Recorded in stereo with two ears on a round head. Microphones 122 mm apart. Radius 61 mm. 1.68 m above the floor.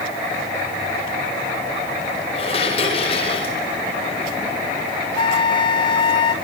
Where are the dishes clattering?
40° left (ahead or behind), 4.5 m.